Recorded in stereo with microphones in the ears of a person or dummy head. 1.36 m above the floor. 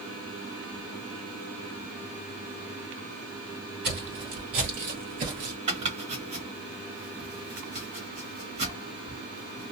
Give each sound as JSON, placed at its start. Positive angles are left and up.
{"t": 3.8, "sound": "footsteps", "side_deg": -40, "distance_m": 1.9}
{"t": 5.7, "sound": "chopping", "side_deg": -40, "distance_m": 1.3}